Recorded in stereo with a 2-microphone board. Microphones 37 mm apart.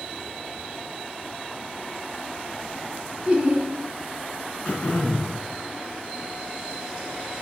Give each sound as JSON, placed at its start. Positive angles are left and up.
{"t": 3.2, "sound": "laughter", "side_deg": -25, "distance_m": 1.6}
{"t": 4.7, "sound": "throat clearing", "side_deg": 40, "distance_m": 1.6}